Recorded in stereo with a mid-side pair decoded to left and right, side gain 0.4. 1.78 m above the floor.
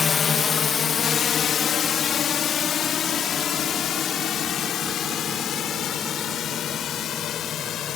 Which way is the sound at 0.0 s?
55° left.